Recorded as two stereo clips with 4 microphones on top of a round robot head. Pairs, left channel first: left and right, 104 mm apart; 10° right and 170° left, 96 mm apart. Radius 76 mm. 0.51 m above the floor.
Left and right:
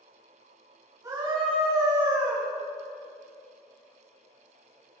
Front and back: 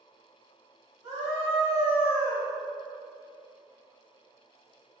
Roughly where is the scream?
Behind right.